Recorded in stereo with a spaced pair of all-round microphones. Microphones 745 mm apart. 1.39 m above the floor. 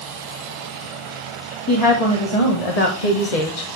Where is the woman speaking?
30° left (ahead or behind), 1.6 m; by 3.7 s 80° left, 1.1 m.